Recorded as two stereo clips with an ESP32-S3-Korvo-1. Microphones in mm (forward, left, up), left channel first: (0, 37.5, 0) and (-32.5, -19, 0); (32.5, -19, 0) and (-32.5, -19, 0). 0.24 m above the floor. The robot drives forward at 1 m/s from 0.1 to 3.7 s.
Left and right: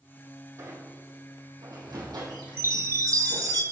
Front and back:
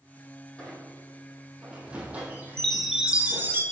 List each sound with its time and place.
0.6 s a squeak: 75° right, 2.5 m; by 3.6 s 135° right, 3.5 m
2.6 s a chime: 75° right, 1.2 m; by 3.6 s 130° right, 1.4 m